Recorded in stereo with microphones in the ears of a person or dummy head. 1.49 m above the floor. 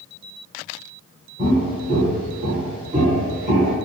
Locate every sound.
1.4 s footsteps: 15° right (ahead or behind), 1.5 m; by 3.7 s 35° right (ahead or behind), 2 m